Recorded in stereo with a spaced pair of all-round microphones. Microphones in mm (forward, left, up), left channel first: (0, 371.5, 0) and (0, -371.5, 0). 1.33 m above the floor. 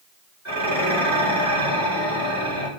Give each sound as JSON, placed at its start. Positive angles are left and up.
{"t": 0.5, "sound": "dishes clattering", "side_deg": -20, "distance_m": 3.5}